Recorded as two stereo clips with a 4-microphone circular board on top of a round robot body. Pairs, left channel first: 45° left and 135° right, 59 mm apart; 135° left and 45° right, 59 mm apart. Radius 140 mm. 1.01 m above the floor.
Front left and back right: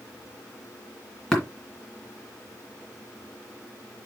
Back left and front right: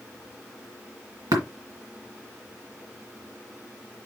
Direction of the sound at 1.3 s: 40° right.